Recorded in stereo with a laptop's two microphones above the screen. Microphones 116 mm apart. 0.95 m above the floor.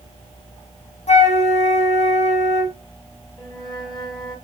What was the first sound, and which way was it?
A flute, 80° left.